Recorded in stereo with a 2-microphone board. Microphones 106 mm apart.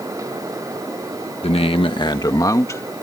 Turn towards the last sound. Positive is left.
turn(degrees=25)  # may be behind; listen again after turning